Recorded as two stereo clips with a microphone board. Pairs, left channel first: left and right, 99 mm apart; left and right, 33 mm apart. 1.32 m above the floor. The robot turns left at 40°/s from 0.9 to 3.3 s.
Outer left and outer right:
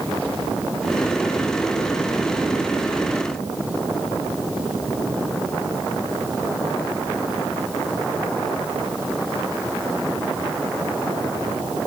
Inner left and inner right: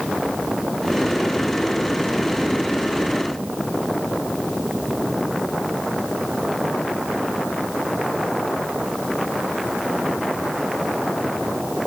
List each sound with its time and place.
Only background noise.